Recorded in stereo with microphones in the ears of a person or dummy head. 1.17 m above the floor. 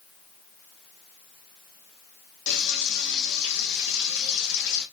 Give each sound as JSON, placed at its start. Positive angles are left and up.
{"t": 2.5, "sound": "frying", "side_deg": 60, "distance_m": 1.5}